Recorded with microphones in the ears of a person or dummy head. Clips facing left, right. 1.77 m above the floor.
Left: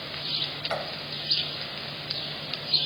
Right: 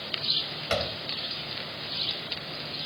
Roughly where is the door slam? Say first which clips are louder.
Right 3 dB; right.